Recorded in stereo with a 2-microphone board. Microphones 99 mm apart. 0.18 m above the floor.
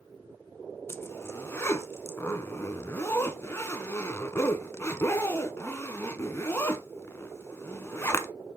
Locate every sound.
0.9 s a zipper: 25° left (ahead or behind), 0.8 m